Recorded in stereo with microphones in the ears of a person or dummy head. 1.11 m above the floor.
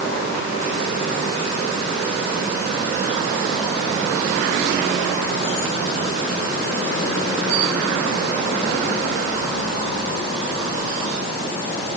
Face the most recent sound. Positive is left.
No sound to turn to.